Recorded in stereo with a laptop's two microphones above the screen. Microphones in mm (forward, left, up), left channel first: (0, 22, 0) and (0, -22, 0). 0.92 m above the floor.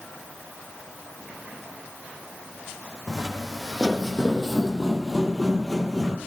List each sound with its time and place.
3.1 s footsteps: centre (ahead or behind), 1.8 m